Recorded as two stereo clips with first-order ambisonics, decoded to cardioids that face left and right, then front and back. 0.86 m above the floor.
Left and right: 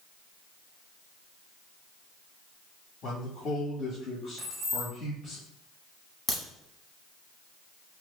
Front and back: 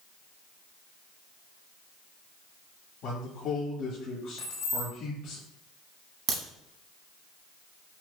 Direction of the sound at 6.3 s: 165° left.